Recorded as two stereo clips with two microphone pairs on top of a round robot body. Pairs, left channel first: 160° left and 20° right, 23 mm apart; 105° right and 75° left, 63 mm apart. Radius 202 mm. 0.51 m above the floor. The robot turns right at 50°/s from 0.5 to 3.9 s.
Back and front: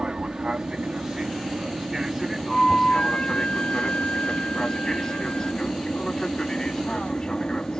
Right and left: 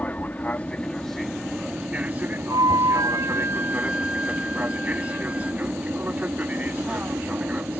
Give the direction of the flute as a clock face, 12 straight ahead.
9 o'clock.